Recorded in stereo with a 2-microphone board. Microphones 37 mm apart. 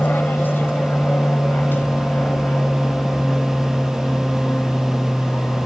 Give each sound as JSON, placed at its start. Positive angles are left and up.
{"t": 0.0, "sound": "an aircraft", "side_deg": 65}